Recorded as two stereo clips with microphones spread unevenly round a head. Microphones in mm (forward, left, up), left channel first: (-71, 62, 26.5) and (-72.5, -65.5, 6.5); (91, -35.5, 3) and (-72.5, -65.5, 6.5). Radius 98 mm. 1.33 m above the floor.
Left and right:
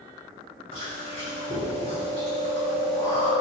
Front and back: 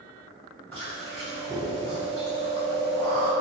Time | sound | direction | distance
0.7 | chewing | 95° left | 1.3 m